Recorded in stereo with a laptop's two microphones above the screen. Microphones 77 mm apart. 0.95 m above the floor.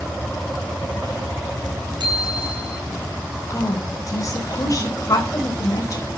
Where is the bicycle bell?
70° right (ahead or behind), 6.5 m.